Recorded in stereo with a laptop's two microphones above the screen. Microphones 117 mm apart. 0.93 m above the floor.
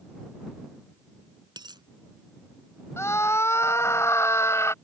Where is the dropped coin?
35° right (ahead or behind).